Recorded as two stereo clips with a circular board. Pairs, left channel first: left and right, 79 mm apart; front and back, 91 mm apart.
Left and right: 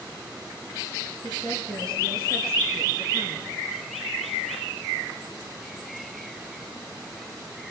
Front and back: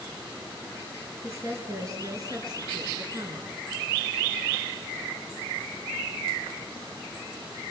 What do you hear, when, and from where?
1.2 s a woman speaking: 120° right, 6 m; by 3.5 s 140° right, 6 m